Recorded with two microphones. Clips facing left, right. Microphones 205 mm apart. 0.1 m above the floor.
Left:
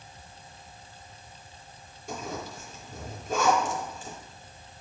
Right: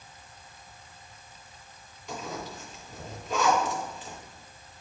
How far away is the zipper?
About 3 m.